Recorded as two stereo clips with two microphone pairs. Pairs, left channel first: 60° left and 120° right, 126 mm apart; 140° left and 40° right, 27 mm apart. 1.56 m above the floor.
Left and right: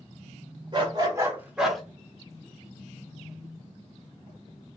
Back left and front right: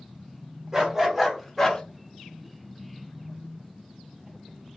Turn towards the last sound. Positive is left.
turn(degrees=140)